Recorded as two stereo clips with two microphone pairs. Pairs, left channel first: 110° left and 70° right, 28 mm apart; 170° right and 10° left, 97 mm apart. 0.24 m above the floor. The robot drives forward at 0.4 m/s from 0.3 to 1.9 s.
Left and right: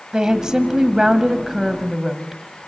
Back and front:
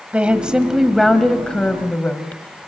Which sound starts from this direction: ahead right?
A woman speaking, at 0.1 s.